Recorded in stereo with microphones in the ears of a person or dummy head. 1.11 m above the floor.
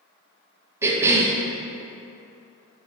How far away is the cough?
About 0.6 m.